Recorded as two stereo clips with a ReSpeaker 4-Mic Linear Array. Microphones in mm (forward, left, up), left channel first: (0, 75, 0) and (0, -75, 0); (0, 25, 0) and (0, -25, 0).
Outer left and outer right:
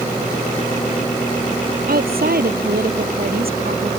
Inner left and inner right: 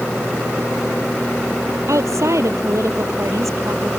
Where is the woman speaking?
80° right.